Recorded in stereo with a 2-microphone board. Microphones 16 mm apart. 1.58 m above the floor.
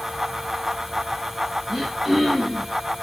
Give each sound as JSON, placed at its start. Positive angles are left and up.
{"t": 1.7, "sound": "throat clearing", "side_deg": -35, "distance_m": 7.0}